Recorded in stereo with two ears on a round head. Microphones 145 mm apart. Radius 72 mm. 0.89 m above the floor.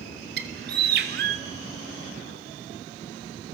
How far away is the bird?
About 2.5 m.